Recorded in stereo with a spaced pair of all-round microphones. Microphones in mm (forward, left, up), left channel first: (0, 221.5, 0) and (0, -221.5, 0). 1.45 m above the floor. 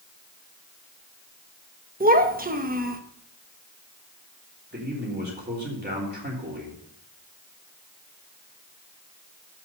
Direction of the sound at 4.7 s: 20° right (ahead or behind).